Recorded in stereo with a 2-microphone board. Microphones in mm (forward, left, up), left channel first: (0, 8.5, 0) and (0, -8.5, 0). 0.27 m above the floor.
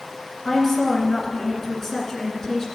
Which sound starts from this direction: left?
A woman speaking, at 0.5 s.